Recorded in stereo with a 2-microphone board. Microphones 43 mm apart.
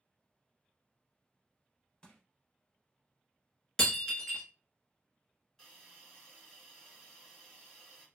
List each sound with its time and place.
2.0 s crushing: 20° left (ahead or behind), 0.7 m
3.8 s breaking glass: 10° left (ahead or behind), 0.9 m
5.6 s a hiss: 10° left (ahead or behind), 1.3 m